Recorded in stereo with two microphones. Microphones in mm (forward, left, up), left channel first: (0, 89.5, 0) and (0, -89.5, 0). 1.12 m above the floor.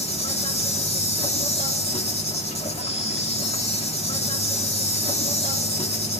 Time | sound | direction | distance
0.0 | an insect | 30° left (ahead or behind) | 2.5 m